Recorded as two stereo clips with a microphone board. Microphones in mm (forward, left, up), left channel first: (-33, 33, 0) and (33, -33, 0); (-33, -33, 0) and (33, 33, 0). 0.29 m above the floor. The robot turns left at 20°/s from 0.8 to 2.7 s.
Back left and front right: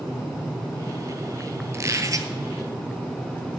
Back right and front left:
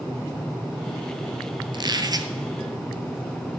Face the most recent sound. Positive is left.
turn(degrees=-5)